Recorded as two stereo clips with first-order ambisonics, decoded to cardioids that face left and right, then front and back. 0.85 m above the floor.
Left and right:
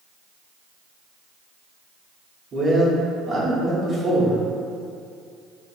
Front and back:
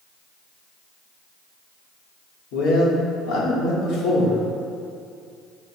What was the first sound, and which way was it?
A man speaking, 25° right.